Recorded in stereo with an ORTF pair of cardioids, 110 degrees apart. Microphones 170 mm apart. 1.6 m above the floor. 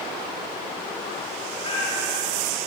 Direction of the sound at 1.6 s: 30° left.